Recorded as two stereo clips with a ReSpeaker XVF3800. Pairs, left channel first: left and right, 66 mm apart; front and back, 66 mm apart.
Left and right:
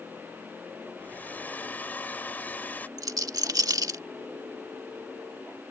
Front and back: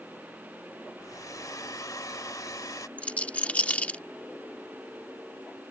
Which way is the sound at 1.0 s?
25° left.